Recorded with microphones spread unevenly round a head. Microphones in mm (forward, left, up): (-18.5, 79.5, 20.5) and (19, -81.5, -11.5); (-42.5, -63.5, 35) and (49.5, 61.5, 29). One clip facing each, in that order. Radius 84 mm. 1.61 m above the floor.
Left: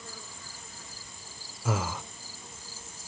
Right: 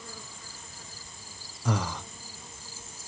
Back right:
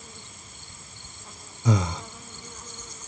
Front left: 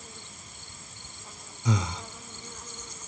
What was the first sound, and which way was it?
Breathing, 175° right.